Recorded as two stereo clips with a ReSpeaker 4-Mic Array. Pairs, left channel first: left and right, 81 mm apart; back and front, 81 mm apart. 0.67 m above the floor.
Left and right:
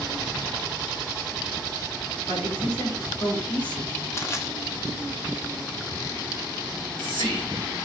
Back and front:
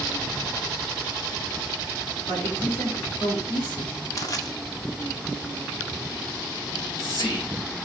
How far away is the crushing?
About 1.6 m.